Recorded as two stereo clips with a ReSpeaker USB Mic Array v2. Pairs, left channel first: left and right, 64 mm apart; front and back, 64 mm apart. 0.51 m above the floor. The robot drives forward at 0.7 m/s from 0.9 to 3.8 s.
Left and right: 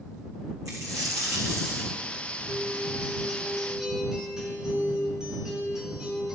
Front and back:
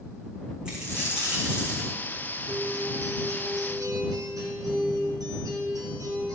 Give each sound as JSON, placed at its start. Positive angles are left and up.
{"t": 0.7, "sound": "a dropped coin", "azimuth_deg": -105, "distance_m": 4.0}
{"t": 2.5, "sound": "a guitar", "azimuth_deg": -165, "distance_m": 1.2}